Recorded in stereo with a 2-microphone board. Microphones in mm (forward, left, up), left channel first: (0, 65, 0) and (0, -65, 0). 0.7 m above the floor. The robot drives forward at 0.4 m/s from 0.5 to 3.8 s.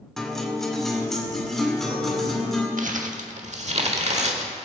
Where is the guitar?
5° left (ahead or behind), 2 m.